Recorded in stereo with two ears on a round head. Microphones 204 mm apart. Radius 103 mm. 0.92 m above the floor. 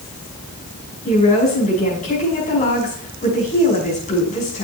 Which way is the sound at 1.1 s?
35° left (ahead or behind).